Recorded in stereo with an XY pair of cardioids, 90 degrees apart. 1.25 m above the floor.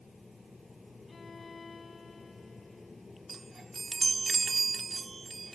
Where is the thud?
I don't hear a thud.